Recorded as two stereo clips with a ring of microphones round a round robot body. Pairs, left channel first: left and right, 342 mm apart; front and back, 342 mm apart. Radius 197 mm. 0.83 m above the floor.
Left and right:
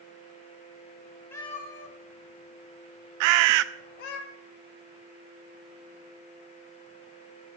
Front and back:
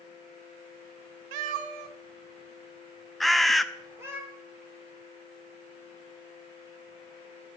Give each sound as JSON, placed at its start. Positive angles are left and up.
{"t": 1.3, "sound": "a cat meowing", "azimuth_deg": 175, "distance_m": 0.8}
{"t": 3.2, "sound": "a bird", "azimuth_deg": -90, "distance_m": 0.7}